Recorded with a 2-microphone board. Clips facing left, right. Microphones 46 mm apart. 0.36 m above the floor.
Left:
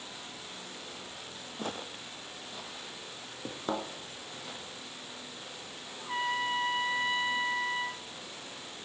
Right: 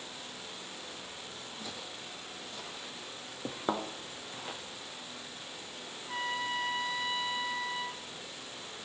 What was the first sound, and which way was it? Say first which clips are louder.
Footsteps: left 8 dB; 50° left (ahead or behind).